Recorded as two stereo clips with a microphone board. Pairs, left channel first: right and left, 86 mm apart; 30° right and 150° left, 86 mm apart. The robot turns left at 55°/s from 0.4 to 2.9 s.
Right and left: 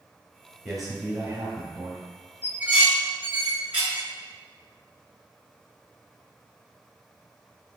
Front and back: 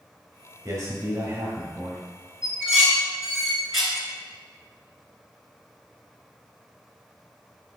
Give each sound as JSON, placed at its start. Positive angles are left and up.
{"t": 0.7, "sound": "a man speaking", "azimuth_deg": -175, "distance_m": 1.4}
{"t": 2.4, "sound": "dishes clattering", "azimuth_deg": 95, "distance_m": 0.9}